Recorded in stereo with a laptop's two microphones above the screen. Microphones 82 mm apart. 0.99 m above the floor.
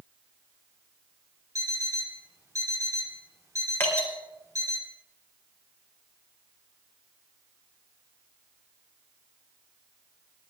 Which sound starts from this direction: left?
Dripping, at 3.8 s.